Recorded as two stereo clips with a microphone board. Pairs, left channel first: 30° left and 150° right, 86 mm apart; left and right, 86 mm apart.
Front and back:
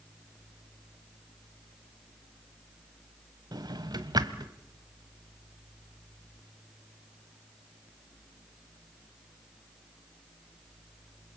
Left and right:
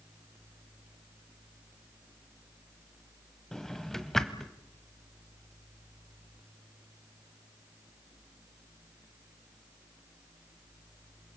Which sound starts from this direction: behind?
A drawer, at 3.5 s.